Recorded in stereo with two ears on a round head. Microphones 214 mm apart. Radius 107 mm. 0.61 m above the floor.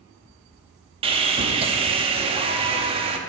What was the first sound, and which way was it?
Sawing, 25° right (ahead or behind).